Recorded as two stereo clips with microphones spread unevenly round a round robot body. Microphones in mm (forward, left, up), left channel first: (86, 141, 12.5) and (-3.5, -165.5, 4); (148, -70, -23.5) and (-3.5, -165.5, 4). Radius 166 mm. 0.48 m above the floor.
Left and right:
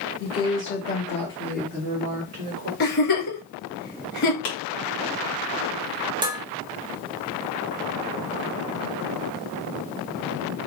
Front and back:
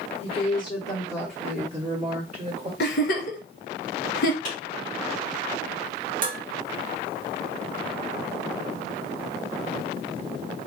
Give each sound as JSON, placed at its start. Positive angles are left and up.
{"t": 0.2, "sound": "a woman speaking", "azimuth_deg": 60, "distance_m": 1.6}
{"t": 2.8, "sound": "a giggle", "azimuth_deg": 15, "distance_m": 1.1}
{"t": 4.5, "sound": "a clap", "azimuth_deg": 75, "distance_m": 2.5}
{"t": 6.2, "sound": "dishes clattering", "azimuth_deg": -175, "distance_m": 0.5}